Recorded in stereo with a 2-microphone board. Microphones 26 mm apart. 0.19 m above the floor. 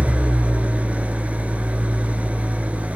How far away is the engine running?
About 1.7 m.